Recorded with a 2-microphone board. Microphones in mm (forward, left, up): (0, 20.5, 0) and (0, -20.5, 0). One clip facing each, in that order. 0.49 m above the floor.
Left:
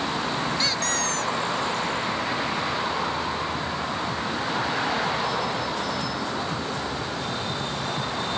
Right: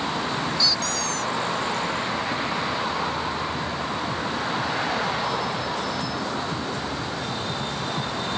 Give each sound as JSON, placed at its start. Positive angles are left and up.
{"t": 0.6, "sound": "a squeak", "side_deg": 45}